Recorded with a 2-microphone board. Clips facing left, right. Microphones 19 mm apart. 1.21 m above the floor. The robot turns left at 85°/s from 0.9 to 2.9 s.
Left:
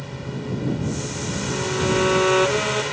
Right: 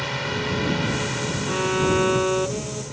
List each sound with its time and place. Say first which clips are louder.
0.0 s a drone: right 6 dB; 125° right; by 2.9 s 65° left
1.5 s a violin: right 1 dB; 125° right; by 2.8 s 120° left